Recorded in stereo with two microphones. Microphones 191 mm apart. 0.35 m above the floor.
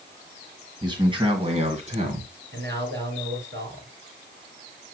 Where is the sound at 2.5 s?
65° right (ahead or behind), 4.5 m.